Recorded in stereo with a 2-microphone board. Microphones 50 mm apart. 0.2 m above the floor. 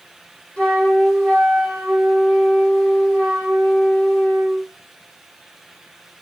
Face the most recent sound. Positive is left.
turn(degrees=20)  # may be behind; listen again after turning